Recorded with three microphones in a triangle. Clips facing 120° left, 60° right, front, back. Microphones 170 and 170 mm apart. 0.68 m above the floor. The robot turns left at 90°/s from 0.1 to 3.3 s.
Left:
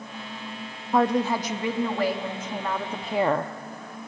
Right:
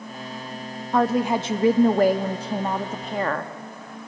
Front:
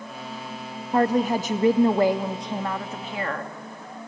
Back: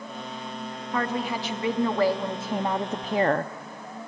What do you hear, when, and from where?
0.9 s a woman speaking: 40° left, 0.6 m; by 3.5 s 175° right, 0.6 m